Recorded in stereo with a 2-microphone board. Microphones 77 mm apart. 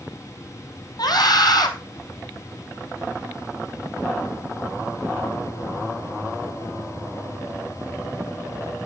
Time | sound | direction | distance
1.0 | a scream | 65° left (ahead or behind) | 4 m